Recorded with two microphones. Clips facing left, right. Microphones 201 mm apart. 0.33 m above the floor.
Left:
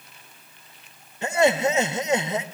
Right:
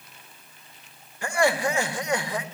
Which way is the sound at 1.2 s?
20° left (ahead or behind).